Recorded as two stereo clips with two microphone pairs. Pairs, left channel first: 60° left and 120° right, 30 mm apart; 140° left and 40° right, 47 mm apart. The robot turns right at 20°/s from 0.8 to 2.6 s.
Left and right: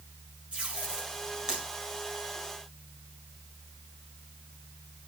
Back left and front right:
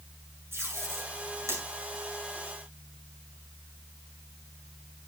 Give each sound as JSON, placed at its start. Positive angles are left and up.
{"t": 0.5, "sound": "tape being pulled", "azimuth_deg": -70, "distance_m": 7.0}